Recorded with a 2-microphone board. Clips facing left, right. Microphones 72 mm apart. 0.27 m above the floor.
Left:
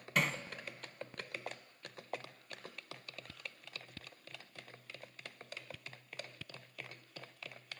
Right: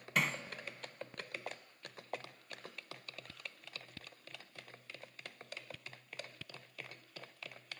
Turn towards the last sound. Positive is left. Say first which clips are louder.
# left 1 dB
turn(degrees=0)  # may be behind; listen again after turning